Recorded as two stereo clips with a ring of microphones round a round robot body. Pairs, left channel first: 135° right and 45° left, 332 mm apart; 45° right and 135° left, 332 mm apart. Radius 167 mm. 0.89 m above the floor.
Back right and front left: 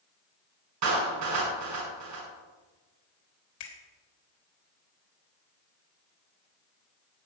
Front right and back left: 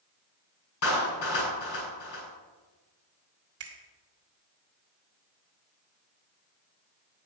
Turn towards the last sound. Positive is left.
turn(degrees=-175)